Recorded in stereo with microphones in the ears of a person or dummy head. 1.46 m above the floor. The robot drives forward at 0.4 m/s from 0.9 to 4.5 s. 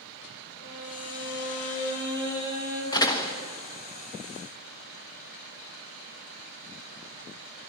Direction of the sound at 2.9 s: 20° left (ahead or behind).